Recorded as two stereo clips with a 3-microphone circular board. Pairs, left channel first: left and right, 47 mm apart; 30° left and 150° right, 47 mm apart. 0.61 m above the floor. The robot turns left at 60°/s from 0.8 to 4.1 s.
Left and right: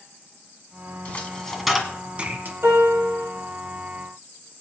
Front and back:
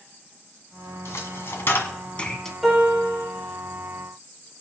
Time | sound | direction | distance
1.1 | a dropped coin | 40° left | 1.5 m
2.6 | a piano | 60° right | 7 m